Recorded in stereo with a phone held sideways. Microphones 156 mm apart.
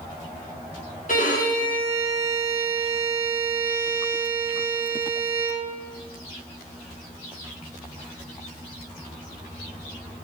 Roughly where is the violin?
Left.